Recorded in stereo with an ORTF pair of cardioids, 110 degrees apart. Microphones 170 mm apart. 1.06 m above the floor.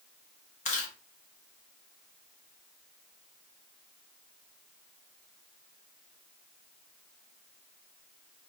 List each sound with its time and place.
0.7 s chewing: 45° left, 1.2 m